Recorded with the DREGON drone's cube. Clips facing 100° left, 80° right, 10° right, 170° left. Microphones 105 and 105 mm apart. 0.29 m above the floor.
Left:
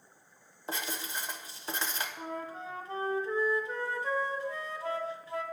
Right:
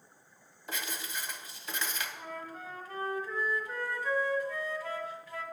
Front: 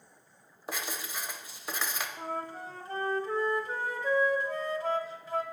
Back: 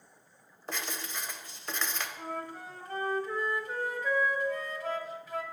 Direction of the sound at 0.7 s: 65° left.